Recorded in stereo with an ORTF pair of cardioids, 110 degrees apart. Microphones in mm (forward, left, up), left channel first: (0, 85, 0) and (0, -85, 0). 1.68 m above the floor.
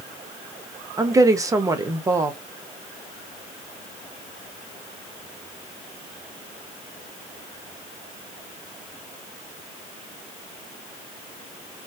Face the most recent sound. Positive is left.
turn(degrees=-20)